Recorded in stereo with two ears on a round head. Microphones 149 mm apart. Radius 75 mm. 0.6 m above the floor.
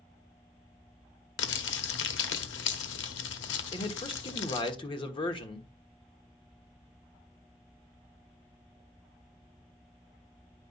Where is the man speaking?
30° left (ahead or behind), 1.2 m.